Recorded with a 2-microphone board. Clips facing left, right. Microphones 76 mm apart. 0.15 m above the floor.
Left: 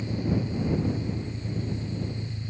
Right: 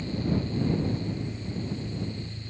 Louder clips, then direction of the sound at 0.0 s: Left 1 dB; 20° left (ahead or behind).